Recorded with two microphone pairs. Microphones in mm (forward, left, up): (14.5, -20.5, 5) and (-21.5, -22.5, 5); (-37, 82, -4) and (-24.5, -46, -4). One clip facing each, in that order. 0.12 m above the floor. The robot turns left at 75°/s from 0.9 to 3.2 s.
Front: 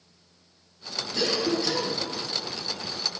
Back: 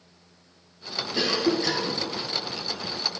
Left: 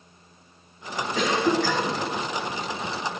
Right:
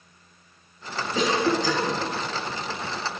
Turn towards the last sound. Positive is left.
turn(degrees=100)